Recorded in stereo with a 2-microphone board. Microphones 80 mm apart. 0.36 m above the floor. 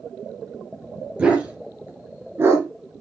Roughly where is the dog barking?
Centre.